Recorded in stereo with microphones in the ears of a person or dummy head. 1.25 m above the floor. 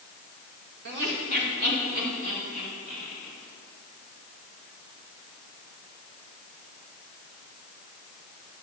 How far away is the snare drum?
I don't hear a snare drum.